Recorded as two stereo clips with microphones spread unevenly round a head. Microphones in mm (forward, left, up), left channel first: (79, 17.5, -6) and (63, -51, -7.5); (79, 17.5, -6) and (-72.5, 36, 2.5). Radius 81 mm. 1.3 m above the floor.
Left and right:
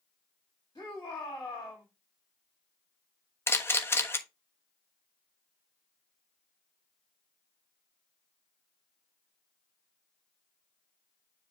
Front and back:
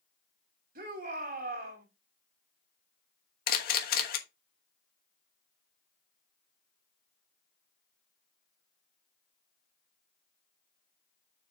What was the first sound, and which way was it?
A shout, 145° left.